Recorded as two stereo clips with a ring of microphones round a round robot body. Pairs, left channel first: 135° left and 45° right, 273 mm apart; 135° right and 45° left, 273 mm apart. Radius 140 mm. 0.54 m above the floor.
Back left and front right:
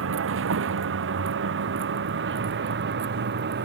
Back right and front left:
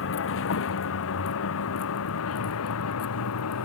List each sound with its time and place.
0.0 s a vehicle: 90° right; by 3.7 s 100° right